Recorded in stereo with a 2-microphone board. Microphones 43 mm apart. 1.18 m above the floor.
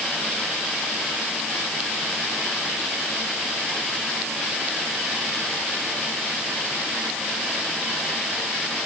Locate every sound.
Only background noise.